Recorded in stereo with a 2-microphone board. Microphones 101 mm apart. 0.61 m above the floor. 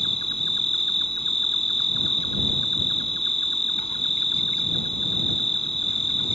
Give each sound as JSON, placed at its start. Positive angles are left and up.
{"t": 0.0, "sound": "an insect", "side_deg": 80}